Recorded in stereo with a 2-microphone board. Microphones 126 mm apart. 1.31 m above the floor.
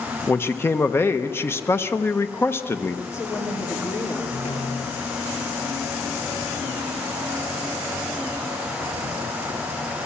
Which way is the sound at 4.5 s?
70° left (ahead or behind).